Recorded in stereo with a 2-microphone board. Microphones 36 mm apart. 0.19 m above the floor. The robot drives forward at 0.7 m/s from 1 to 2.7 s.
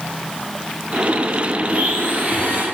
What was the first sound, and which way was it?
A blender, 40° right (ahead or behind).